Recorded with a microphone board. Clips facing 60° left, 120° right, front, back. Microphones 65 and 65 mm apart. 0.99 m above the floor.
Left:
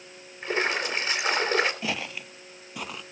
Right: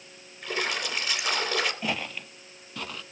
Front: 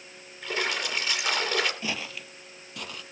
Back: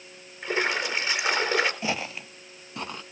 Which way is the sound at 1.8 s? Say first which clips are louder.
Even, back 4 dB; 140° left.